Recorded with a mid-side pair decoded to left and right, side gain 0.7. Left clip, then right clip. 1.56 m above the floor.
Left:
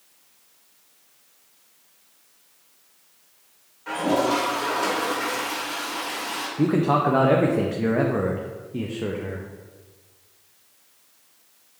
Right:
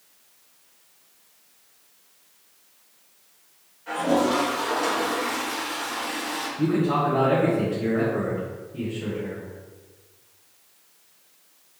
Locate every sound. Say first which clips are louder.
3.9 s a toilet flushing: even; 40° left, 1.9 m
6.6 s a man speaking: left 3 dB; 40° left, 0.6 m